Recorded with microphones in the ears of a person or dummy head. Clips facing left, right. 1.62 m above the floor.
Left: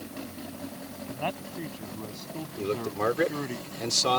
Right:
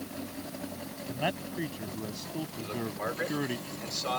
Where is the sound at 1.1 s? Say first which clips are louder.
Right 1 dB; 10° right (ahead or behind); by 3.6 s 5° right (ahead or behind).